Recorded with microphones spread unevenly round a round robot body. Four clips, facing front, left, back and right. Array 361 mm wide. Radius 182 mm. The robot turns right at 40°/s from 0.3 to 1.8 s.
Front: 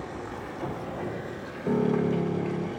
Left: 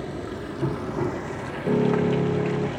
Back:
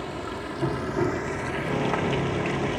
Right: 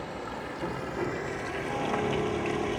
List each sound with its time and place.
0.0 s running water: 110° left, 1.0 m; by 2.8 s 170° left, 1.0 m
1.6 s a piano: 65° left, 3.5 m; by 2.7 s 70° left, 3.5 m